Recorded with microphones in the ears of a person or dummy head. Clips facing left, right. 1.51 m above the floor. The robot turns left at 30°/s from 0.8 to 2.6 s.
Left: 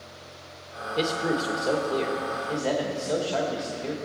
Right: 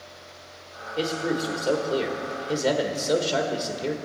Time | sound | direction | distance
1.0 | a man speaking | 20° left | 1.5 m